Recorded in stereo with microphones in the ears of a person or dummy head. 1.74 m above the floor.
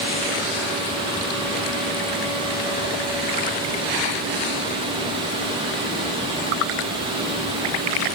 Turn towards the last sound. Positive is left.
No sound to turn to.